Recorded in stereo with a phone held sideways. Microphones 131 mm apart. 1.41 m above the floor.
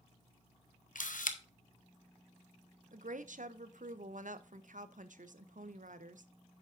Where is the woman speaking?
75° right (ahead or behind), 0.7 m.